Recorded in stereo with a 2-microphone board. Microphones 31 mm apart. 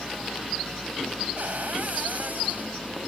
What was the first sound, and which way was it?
A cupboard door, 65° right (ahead or behind).